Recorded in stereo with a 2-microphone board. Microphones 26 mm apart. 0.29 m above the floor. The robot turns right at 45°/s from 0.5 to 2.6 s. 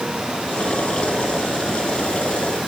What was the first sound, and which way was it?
Only background noise.